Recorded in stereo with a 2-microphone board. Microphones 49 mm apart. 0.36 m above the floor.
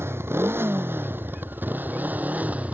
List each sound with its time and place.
0.0 s a motorcycle: 65° right (ahead or behind); by 2.8 s 30° right (ahead or behind)